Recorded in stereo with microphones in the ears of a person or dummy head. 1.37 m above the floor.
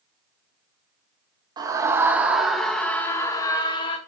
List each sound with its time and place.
1.6 s a scream: 20° right (ahead or behind), 2.0 m; by 4.0 s 25° left (ahead or behind), 2 m